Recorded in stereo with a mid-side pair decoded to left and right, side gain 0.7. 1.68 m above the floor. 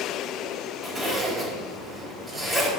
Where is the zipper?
10° right, 4 m.